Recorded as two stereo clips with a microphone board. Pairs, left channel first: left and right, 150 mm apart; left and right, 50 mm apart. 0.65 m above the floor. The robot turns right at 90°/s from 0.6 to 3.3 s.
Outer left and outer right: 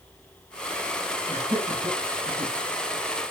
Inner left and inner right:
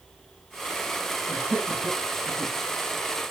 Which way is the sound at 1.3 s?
15° right (ahead or behind).